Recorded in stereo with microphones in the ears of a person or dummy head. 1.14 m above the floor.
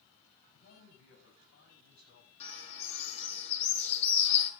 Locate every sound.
0.5 s a man speaking: 80° left, 7.5 m; by 2.3 s 70° left (ahead or behind), 8 m
2.4 s a bird: 35° left (ahead or behind), 6 m